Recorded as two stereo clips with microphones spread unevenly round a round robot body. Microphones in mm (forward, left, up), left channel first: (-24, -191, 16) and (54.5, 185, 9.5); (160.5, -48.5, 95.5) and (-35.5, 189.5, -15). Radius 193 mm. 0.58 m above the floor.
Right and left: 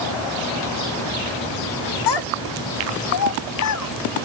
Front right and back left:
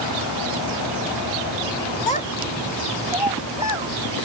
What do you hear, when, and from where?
2.1 s a child speaking: 125° right; by 3.9 s 150° right